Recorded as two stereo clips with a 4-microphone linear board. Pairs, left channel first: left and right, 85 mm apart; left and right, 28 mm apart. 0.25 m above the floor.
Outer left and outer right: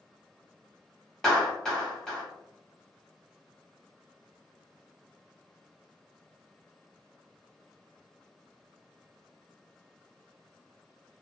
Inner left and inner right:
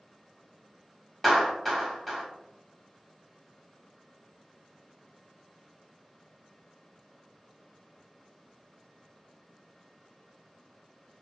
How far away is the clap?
About 0.9 m.